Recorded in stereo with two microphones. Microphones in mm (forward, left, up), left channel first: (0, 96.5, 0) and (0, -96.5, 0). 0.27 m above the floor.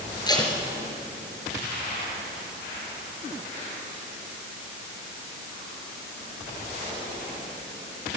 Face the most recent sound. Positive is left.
turn(degrees=20)  # may be behind; listen again after turning